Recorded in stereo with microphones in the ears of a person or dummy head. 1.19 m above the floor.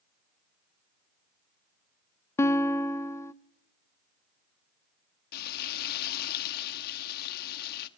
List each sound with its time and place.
2.4 s a guitar: 15° left (ahead or behind), 0.6 m
5.3 s frying: 55° left (ahead or behind), 1.3 m